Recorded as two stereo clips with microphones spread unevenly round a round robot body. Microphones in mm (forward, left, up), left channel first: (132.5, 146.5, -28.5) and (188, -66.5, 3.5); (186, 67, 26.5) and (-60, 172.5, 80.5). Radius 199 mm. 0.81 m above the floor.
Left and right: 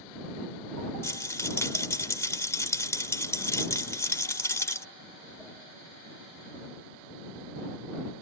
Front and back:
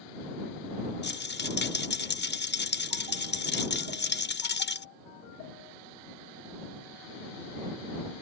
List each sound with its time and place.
1.0 s a rattle: 25° left